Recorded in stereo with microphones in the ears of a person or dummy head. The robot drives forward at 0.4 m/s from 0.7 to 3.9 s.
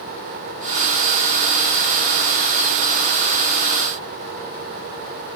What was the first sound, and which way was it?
Only background noise.